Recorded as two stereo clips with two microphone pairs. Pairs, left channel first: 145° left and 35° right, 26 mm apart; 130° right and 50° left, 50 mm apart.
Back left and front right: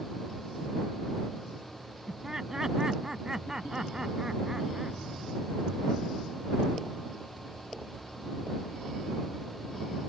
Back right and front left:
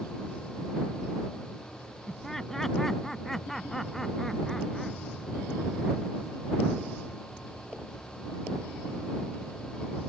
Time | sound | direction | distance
2.1 | laughter | 55° right | ?